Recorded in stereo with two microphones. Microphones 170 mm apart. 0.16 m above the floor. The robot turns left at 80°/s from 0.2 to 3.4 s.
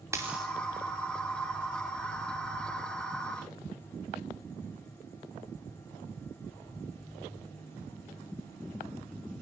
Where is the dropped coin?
15° right (ahead or behind), 3.5 m; by 0.5 s 5° left (ahead or behind), 3.5 m.